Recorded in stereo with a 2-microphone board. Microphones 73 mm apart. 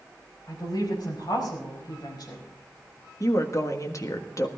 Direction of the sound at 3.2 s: 50° left (ahead or behind).